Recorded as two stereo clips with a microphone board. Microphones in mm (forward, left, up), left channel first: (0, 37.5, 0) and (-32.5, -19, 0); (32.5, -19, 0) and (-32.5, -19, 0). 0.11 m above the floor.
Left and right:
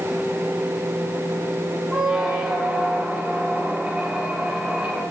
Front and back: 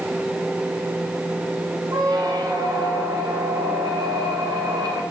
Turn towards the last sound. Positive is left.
turn(degrees=165)